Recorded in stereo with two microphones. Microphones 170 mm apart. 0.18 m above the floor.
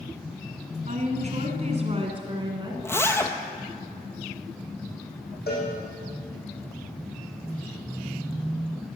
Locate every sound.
0.9 s a woman speaking: 45° right (ahead or behind), 1.6 m; by 2.7 s 25° right (ahead or behind), 1.7 m
2.8 s a zipper: 15° left (ahead or behind), 0.7 m
5.5 s a cowbell: 70° left (ahead or behind), 4 m